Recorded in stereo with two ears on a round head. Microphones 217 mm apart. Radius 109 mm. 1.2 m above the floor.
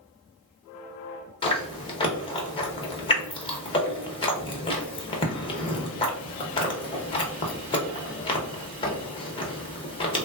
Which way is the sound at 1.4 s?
20° left (ahead or behind).